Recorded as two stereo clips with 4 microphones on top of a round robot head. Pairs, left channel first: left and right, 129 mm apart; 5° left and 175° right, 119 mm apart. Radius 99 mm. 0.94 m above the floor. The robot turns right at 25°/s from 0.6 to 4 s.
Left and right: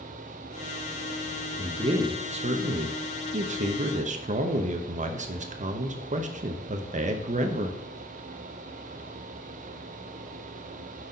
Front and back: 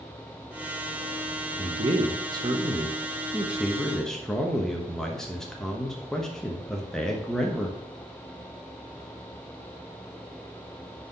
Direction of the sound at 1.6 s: 140° right.